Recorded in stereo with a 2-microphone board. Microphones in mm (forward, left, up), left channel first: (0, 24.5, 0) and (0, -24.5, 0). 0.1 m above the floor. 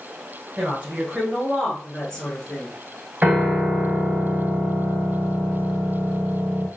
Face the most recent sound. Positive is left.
turn(degrees=-20)  # may be behind; listen again after turning